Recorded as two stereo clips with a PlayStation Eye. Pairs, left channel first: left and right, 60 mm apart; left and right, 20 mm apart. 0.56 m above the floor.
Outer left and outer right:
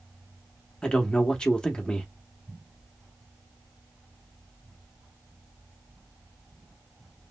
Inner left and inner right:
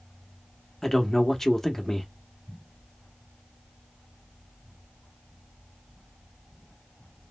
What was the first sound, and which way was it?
A man speaking, 15° left (ahead or behind).